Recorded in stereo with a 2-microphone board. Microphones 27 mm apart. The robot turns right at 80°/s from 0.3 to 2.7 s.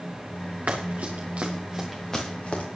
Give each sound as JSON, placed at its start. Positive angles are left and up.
{"t": 0.7, "sound": "running footsteps", "side_deg": -65, "distance_m": 3.5}